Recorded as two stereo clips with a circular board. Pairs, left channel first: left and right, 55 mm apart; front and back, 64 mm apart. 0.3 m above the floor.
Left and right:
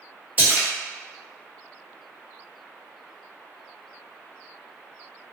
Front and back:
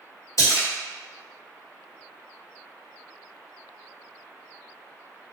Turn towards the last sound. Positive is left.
turn(degrees=-30)